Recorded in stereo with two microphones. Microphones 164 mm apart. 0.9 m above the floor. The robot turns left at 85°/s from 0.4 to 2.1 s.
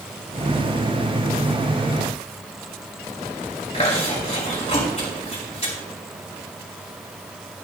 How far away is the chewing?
About 3.5 m.